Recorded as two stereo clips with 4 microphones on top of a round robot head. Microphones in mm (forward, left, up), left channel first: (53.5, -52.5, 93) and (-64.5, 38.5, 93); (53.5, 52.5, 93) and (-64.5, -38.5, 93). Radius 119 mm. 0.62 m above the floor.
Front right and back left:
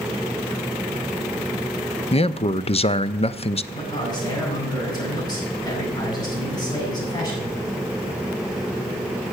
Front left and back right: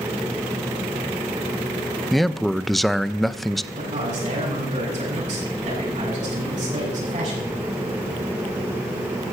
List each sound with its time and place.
2.1 s a man speaking: 50° right, 0.6 m
3.7 s a man speaking: 100° right, 7.5 m